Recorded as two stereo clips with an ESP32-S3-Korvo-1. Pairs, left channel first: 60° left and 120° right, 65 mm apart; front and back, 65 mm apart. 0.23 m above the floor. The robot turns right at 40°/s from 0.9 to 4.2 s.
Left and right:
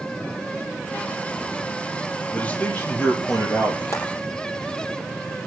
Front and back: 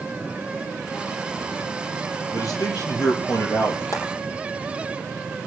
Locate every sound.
2.3 s a man speaking: 15° right, 5 m; by 3.8 s 45° left, 5 m
3.9 s frying: 30° left, 6 m; by 4.0 s 35° left, 6 m